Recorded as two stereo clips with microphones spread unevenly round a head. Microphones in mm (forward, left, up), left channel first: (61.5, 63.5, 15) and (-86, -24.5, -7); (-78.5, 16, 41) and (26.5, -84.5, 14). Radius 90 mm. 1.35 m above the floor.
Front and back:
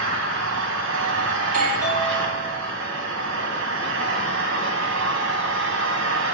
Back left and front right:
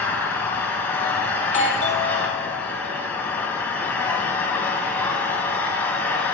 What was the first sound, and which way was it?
An engine running, 150° right.